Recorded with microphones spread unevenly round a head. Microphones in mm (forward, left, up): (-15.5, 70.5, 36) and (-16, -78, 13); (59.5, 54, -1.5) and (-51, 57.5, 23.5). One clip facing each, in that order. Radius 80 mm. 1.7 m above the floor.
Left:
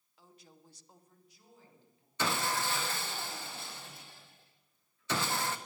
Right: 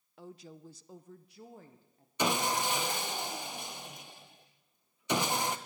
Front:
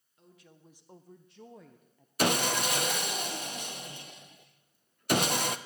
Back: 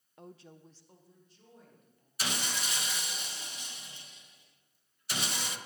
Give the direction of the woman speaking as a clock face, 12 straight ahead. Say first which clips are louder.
Right 11 dB, back 7 dB; 4 o'clock.